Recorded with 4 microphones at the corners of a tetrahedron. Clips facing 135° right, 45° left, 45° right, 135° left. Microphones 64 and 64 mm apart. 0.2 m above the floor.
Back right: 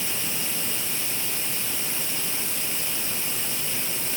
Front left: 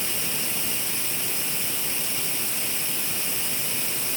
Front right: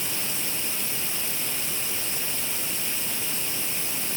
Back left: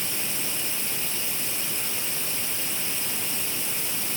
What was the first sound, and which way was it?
Only background noise.